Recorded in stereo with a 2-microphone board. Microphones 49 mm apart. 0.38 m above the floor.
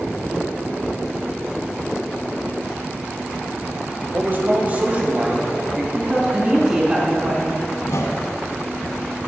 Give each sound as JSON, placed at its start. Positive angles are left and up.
{"t": 4.1, "sound": "a man speaking", "side_deg": -45, "distance_m": 1.4}
{"t": 6.0, "sound": "a woman speaking", "side_deg": -15, "distance_m": 2.5}
{"t": 7.8, "sound": "a whoosh", "side_deg": 80, "distance_m": 1.0}